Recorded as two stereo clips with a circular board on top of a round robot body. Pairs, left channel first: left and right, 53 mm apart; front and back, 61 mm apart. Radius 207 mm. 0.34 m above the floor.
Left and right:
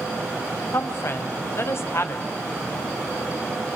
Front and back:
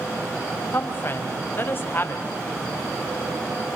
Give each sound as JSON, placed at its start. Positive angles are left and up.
{"t": 0.7, "sound": "a woman speaking", "azimuth_deg": 50, "distance_m": 3.0}